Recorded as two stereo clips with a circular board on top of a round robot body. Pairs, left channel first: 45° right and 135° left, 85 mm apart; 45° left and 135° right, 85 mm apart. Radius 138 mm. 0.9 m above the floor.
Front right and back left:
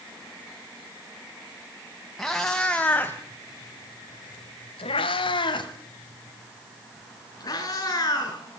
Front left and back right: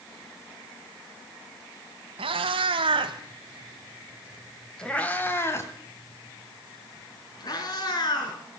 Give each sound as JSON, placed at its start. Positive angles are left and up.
{"t": 2.2, "sound": "a cat meowing", "azimuth_deg": -130, "distance_m": 2.0}